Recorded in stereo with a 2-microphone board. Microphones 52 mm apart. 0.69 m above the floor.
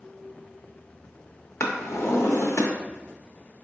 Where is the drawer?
70° left (ahead or behind), 0.6 m.